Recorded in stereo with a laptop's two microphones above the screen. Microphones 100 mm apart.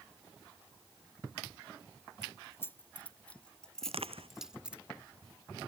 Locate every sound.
2.2 s keys jangling: 30° left (ahead or behind); by 4.8 s 15° right (ahead or behind)
3.8 s crushing: 75° right (ahead or behind)